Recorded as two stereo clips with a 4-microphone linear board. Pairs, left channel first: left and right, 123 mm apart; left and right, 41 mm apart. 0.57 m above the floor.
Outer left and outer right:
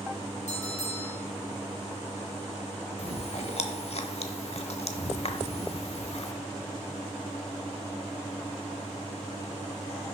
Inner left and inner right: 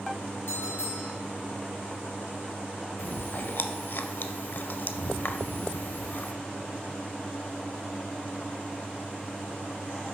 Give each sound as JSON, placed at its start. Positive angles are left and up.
{"t": 0.5, "sound": "a bell", "side_deg": 60, "distance_m": 3.5}
{"t": 3.0, "sound": "chewing", "side_deg": 55, "distance_m": 0.7}